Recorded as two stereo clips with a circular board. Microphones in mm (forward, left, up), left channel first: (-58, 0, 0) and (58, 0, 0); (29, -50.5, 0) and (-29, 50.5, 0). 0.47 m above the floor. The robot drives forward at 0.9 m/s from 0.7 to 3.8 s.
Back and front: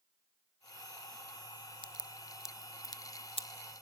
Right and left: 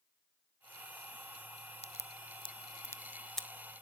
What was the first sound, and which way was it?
A crack, 40° right.